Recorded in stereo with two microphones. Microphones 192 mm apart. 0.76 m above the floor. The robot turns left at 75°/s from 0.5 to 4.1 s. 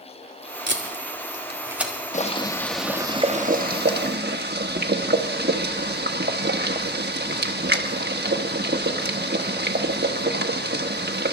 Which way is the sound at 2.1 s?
50° left.